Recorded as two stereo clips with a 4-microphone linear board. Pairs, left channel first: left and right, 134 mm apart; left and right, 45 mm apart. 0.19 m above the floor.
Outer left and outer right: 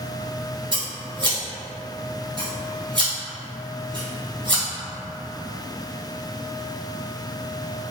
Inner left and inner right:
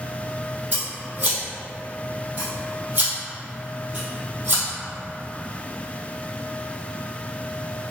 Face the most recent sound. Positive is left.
turn(degrees=-35)  # may be behind; listen again after turning